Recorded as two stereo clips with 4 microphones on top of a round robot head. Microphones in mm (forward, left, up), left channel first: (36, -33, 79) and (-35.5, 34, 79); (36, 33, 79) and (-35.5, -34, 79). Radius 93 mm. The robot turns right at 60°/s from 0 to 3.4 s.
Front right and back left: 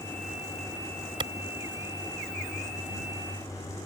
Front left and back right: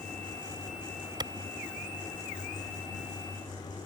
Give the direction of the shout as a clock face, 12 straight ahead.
No shout in this recording.